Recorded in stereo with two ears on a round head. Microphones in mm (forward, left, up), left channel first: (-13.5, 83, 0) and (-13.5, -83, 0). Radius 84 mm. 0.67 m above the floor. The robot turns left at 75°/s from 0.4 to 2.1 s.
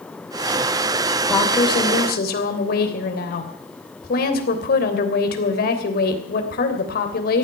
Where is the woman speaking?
Straight behind, 3 m; by 7.5 s 120° left, 3 m.